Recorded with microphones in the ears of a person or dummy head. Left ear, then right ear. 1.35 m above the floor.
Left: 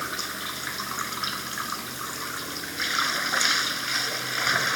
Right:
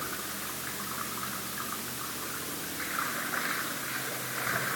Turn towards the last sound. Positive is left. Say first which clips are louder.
# left 6 dB
turn(degrees=80)